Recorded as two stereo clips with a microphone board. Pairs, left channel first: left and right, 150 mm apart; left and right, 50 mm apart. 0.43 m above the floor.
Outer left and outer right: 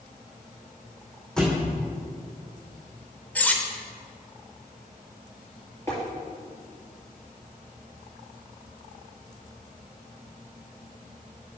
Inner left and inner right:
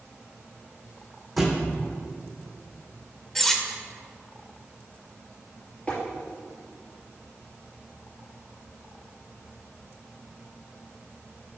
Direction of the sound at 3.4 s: 10° left (ahead or behind).